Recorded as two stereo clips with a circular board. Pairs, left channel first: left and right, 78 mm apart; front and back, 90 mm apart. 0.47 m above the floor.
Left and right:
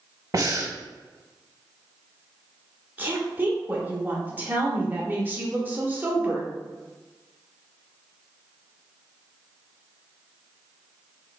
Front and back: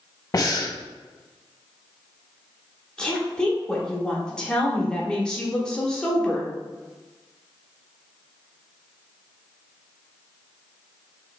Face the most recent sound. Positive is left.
turn(degrees=-70)